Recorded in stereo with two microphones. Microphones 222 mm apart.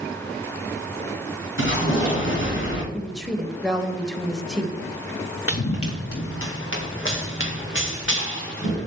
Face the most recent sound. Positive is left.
turn(degrees=60)  # may be behind; listen again after turning